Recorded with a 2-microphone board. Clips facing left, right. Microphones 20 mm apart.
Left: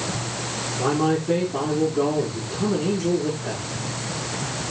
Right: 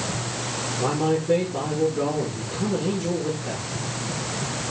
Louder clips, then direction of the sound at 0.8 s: Left 2 dB; 75° left (ahead or behind).